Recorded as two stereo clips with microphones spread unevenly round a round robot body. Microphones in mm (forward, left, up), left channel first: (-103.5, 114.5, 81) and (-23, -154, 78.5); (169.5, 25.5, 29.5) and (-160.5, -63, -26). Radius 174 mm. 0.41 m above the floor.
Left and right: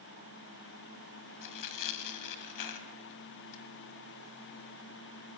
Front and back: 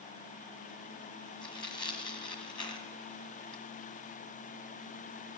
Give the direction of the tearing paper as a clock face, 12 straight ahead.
9 o'clock.